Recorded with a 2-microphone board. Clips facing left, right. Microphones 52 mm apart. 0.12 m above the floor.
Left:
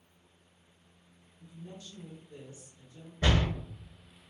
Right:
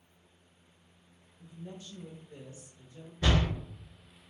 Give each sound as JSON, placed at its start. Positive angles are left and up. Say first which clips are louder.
{"t": 1.4, "sound": "a woman speaking", "louder": "right 2 dB", "side_deg": -25, "distance_m": 1.2}
{"t": 3.2, "sound": "a door slam", "louder": "even", "side_deg": 20, "distance_m": 1.1}